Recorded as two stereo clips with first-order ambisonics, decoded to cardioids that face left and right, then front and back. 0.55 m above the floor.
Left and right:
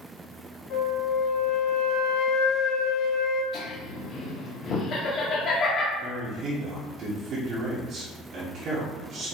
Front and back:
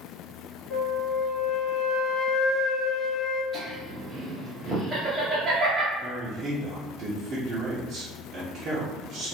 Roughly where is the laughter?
Behind left.